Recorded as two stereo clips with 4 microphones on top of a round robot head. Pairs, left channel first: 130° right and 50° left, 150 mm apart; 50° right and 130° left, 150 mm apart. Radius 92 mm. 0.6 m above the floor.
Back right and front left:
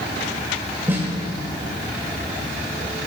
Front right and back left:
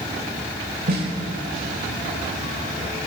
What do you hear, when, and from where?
0.9 s a snare drum: 125° left, 3 m